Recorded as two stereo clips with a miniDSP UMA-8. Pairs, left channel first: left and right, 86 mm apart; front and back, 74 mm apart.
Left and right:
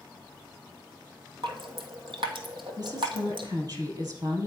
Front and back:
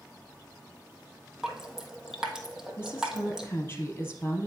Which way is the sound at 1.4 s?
100° right.